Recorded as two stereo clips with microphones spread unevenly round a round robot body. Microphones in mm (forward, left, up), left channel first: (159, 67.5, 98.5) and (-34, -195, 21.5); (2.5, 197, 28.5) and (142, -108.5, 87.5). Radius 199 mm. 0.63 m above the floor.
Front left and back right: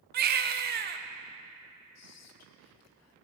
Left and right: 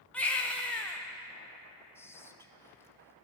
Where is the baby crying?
170° right, 0.5 m.